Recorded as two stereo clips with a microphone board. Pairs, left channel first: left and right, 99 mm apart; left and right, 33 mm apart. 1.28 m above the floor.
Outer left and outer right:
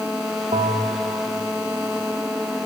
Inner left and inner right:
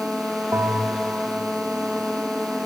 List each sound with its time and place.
0.5 s a bell: 85° right, 2.5 m